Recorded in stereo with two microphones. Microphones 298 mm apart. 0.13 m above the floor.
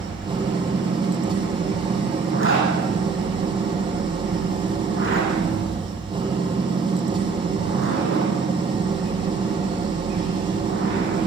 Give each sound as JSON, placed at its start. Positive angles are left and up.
{"t": 0.0, "sound": "an engine running", "side_deg": -15, "distance_m": 4.5}
{"t": 2.3, "sound": "a zipper", "side_deg": 45, "distance_m": 7.5}